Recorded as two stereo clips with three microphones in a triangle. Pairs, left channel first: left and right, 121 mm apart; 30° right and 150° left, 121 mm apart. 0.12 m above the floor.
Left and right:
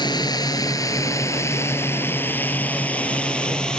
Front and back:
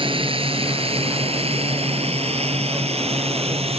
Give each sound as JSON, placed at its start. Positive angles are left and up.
{"t": 0.0, "sound": "a drone", "azimuth_deg": 130}